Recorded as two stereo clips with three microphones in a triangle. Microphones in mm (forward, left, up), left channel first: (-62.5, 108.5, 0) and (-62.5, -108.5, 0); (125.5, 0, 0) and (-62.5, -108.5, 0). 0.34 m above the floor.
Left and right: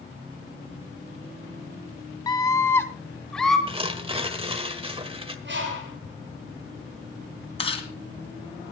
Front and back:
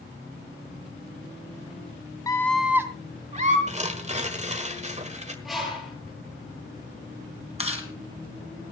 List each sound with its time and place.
2.3 s a scream: 65° left, 1.0 m; by 3.6 s straight behind, 1.4 m
3.7 s tearing paper: 130° right, 1.4 m
5.5 s a bird: 60° right, 7 m
7.6 s chewing: 150° left, 2.5 m